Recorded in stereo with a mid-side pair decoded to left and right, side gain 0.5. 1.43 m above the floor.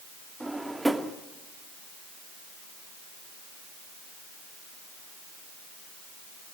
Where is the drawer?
10° right, 2.0 m.